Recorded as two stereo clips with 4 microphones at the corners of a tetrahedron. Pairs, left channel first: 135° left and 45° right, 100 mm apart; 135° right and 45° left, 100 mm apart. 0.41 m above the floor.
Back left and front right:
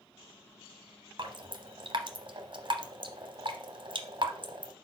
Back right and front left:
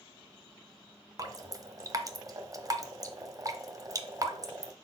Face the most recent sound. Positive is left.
turn(degrees=-10)